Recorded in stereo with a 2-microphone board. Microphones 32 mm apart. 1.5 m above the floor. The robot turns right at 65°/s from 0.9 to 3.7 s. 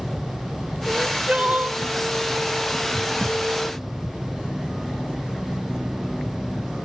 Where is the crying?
160° right, 0.6 m; by 1.8 s 100° right, 0.6 m.